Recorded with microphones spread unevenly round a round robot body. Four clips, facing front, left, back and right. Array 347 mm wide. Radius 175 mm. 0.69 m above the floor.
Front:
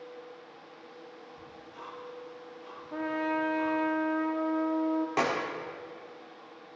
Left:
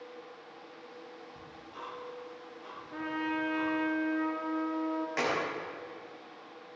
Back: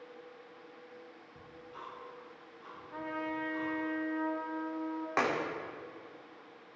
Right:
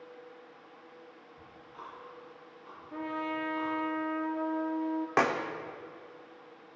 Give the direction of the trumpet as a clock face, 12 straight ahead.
12 o'clock.